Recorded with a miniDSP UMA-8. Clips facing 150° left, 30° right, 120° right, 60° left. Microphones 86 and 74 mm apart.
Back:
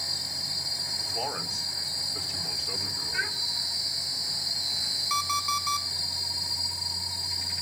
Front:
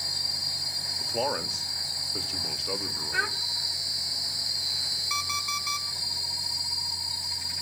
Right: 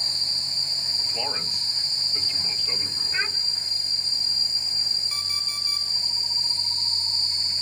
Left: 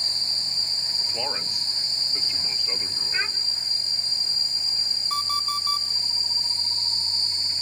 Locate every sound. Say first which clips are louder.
1.0 s a man speaking: front 5 dB, left 1 dB; 20° right, 3 m
3.1 s a child speaking: front 4 dB, right 1 dB; 30° right, 1.3 m
5.1 s an alarm clock: back 5 dB, left 9 dB; 65° left, 4 m